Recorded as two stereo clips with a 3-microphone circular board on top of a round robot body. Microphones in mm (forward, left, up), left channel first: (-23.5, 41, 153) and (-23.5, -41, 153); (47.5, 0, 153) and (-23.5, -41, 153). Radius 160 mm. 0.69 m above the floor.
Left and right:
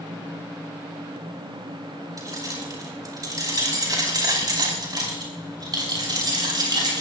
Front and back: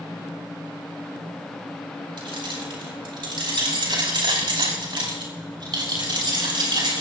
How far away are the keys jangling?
About 4.5 m.